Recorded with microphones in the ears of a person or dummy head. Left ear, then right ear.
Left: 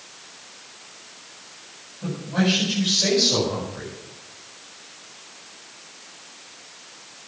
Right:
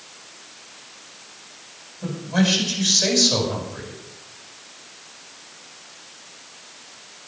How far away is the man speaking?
About 9.5 m.